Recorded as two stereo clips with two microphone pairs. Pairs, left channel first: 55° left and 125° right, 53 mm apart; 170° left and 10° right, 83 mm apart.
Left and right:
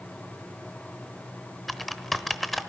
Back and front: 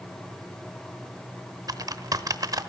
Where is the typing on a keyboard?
35° right, 0.9 m.